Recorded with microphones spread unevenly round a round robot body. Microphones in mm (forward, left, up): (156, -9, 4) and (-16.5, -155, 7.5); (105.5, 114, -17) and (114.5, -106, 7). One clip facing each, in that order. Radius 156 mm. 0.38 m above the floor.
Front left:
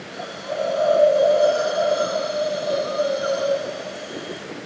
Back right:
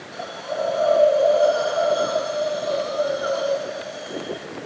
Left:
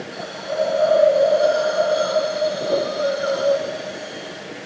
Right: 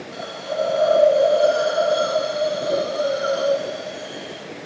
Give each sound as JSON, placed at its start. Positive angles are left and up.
{"t": 0.1, "sound": "a hiss", "azimuth_deg": -35, "distance_m": 5.0}